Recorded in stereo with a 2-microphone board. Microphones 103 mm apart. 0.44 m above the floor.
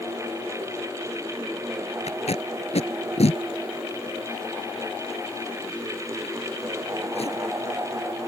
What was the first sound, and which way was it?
Tape being pulled, 80° left.